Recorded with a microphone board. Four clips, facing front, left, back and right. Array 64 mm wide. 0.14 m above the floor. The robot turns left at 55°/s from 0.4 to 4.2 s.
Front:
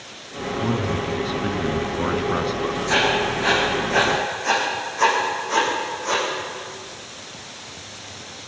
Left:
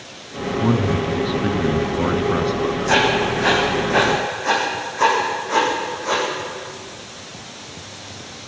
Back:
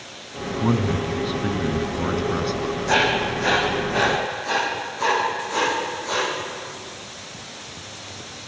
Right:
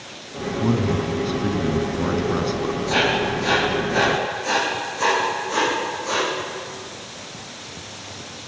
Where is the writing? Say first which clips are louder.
Left 3 dB, back 1 dB; 140° left, 6 m; by 6.2 s 65° left, 6 m.